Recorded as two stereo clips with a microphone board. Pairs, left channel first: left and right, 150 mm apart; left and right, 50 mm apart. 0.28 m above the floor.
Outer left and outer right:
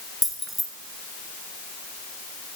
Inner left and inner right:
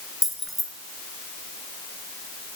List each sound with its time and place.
0.2 s keys jangling: centre (ahead or behind), 2.5 m